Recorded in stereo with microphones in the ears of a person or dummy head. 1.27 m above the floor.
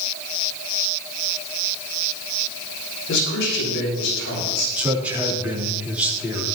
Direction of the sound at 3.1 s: 60° left (ahead or behind).